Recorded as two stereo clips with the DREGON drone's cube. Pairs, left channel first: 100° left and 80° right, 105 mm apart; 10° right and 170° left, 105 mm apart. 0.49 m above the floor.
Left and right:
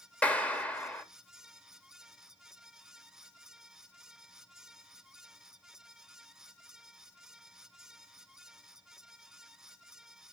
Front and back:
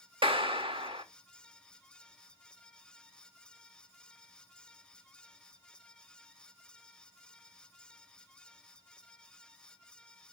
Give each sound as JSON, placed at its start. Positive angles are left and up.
{"t": 0.2, "sound": "a clap", "azimuth_deg": 175, "distance_m": 1.5}